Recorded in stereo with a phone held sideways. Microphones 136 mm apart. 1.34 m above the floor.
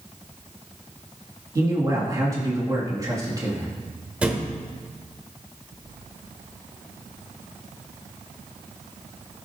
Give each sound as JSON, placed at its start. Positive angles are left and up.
{"t": 1.6, "sound": "a man speaking", "side_deg": -25, "distance_m": 2.5}
{"t": 4.2, "sound": "a thud", "side_deg": -10, "distance_m": 1.2}